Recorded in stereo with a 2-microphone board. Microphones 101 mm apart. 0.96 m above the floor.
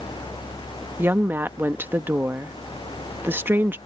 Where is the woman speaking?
20° right (ahead or behind).